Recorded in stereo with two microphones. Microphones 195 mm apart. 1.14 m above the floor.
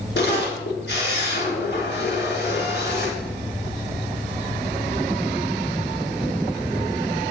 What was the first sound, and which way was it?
A camera shutter, 60° left (ahead or behind).